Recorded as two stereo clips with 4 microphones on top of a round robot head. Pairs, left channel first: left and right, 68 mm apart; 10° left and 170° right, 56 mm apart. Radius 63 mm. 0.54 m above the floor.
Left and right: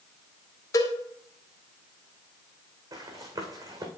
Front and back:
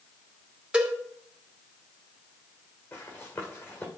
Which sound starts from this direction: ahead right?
Running footsteps, at 2.9 s.